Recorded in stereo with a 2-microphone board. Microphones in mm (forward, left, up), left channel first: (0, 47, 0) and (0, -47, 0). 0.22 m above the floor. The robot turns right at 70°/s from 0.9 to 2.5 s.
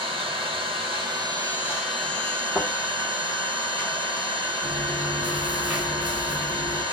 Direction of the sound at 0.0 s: 75° right.